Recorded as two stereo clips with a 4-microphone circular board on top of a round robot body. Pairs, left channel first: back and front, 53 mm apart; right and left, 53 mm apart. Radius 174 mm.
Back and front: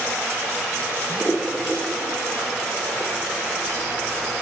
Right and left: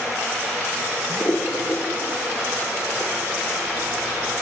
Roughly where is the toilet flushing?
Right.